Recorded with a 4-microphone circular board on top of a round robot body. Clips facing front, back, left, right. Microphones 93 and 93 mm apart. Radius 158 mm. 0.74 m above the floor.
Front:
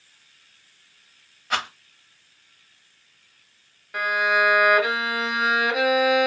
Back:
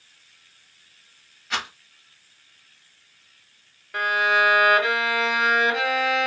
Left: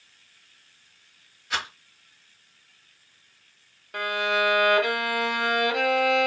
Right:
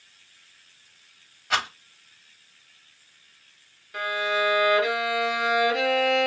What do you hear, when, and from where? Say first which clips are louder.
1.5 s a rattle: front 3 dB, right 5 dB; 45° right, 1.5 m
3.9 s a violin: back 1 dB, left 1 dB; 85° left, 1.4 m